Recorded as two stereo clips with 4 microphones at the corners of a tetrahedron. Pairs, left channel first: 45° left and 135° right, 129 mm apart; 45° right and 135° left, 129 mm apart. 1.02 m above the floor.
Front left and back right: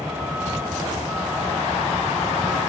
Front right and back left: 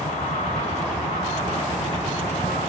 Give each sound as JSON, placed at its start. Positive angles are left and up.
{"t": 0.0, "sound": "a vehicle", "azimuth_deg": -55}